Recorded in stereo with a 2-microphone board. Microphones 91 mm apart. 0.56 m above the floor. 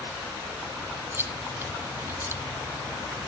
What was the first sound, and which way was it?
Chewing, 25° right (ahead or behind).